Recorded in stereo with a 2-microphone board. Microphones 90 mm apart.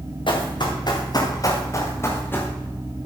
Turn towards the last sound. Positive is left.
turn(degrees=20)  # may be behind; listen again after turning